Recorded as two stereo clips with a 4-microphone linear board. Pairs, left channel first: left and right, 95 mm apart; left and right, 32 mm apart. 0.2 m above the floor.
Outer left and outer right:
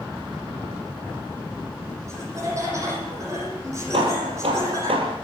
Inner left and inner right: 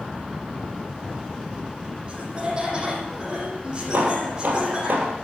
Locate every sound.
2.1 s laughter: 30° right (ahead or behind), 8 m
3.9 s hammering: 75° right (ahead or behind), 4 m